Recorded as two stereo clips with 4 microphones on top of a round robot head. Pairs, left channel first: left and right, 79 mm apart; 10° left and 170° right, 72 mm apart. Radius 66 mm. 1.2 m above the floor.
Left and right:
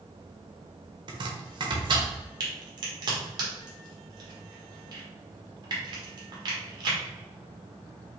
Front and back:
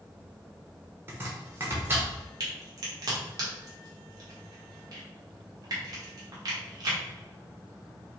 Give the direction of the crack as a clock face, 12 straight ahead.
4 o'clock.